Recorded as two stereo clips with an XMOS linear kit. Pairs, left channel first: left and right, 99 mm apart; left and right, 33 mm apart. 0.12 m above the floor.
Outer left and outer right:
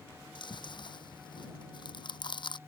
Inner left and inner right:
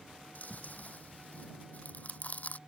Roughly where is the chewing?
Left.